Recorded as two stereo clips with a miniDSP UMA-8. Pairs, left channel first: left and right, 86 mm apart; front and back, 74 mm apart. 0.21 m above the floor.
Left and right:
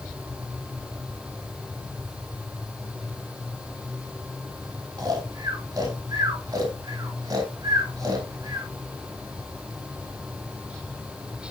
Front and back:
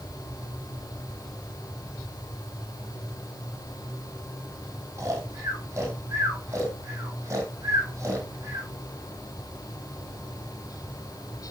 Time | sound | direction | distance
5.0 | snoring | 130° right | 3 m